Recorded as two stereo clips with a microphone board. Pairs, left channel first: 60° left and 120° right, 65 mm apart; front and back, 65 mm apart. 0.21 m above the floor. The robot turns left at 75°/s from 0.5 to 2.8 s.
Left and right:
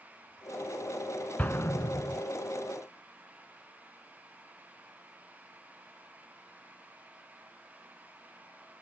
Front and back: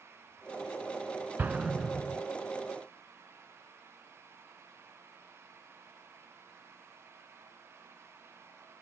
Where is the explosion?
125° left, 0.8 m; by 2.2 s 60° left, 0.8 m.